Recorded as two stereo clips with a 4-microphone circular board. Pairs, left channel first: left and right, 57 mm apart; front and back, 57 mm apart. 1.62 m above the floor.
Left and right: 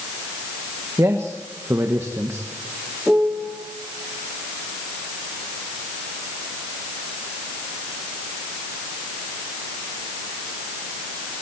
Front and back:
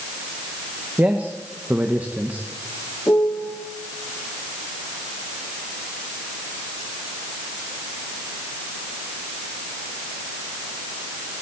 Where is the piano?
20° right, 1.4 m.